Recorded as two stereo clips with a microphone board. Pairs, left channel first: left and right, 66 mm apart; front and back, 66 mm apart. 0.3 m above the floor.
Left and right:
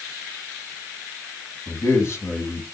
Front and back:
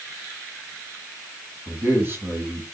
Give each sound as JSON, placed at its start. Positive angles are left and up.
{"t": 1.7, "sound": "a man speaking", "azimuth_deg": 130, "distance_m": 2.0}